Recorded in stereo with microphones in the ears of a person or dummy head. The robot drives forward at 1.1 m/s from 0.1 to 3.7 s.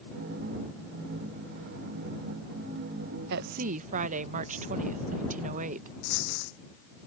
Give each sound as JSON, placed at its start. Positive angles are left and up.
{"t": 3.3, "sound": "a woman speaking", "side_deg": -70}
{"t": 6.0, "sound": "a dropped coin", "side_deg": 65}